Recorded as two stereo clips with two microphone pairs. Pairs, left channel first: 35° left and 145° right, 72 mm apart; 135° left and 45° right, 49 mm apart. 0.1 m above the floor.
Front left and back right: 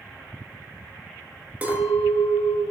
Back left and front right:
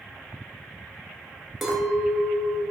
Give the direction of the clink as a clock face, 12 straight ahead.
4 o'clock.